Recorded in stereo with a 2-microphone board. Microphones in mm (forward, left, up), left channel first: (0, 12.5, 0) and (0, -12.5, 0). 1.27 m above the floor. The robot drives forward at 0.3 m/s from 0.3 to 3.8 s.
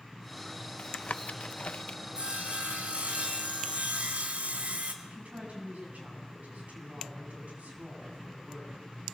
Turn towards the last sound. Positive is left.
turn(degrees=-80)